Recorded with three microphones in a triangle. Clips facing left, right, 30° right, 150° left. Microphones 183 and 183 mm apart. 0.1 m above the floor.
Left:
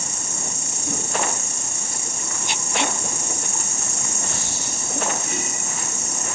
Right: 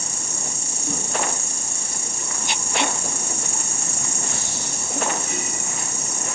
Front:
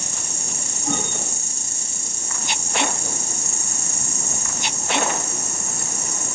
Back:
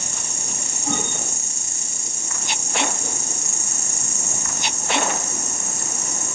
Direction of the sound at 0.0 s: 55° right.